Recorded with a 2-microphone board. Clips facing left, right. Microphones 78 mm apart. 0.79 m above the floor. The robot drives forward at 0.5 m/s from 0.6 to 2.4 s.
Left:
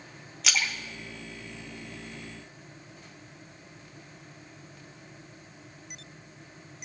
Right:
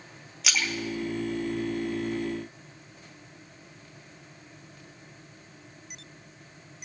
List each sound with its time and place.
0.4 s a splash: 5° right (ahead or behind), 1.1 m; by 2.2 s centre (ahead or behind), 1.9 m